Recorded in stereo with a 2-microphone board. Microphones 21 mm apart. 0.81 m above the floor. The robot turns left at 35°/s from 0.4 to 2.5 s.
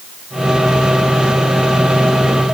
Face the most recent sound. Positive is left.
No sound to turn to.